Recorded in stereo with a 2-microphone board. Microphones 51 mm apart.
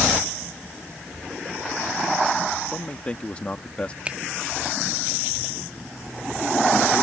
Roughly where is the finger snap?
Right.